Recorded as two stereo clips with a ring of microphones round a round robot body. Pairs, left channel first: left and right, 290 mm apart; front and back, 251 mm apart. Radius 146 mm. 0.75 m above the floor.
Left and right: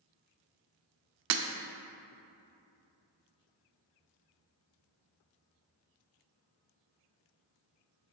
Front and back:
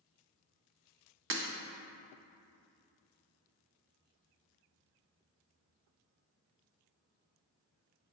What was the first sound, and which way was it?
Breaking glass, 130° right.